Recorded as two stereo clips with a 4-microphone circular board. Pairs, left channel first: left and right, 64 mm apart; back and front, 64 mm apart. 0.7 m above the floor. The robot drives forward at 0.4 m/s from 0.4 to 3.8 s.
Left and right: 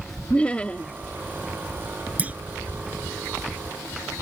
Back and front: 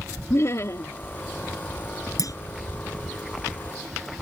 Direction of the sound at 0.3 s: 155° left.